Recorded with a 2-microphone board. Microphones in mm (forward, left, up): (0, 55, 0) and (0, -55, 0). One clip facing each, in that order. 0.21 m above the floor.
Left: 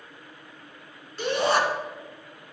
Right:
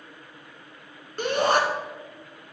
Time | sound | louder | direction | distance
1.2 | a shout | right 1 dB | 50° right (ahead or behind) | 2.5 m